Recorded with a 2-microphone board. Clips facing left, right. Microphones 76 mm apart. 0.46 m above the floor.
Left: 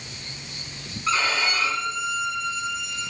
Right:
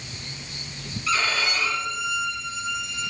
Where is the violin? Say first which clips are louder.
Left 1 dB; 35° left (ahead or behind), 3 m.